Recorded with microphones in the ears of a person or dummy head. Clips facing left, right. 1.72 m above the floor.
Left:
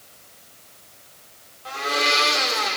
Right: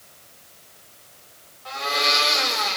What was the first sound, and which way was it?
A blender, 35° left (ahead or behind).